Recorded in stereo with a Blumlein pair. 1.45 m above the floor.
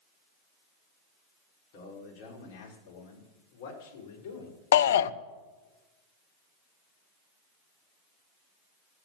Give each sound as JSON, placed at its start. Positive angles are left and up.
{"t": 1.7, "sound": "a man speaking", "azimuth_deg": 45, "distance_m": 4.5}
{"t": 4.7, "sound": "a shout", "azimuth_deg": 60, "distance_m": 0.6}